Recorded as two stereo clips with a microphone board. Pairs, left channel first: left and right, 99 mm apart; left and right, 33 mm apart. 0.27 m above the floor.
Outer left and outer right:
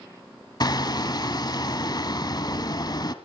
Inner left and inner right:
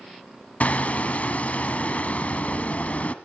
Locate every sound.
0.6 s hammering: 45° left (ahead or behind), 1.0 m